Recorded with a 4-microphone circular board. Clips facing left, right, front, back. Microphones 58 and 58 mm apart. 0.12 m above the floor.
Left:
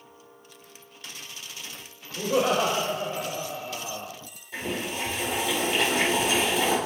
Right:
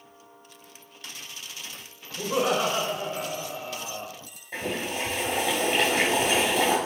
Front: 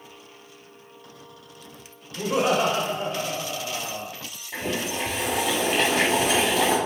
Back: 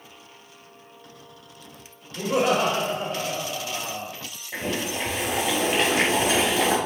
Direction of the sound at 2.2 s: 145° left.